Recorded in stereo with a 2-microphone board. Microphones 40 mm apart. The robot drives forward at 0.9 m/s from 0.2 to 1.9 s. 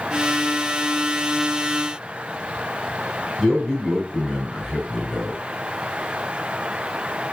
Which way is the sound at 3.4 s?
Centre (ahead or behind).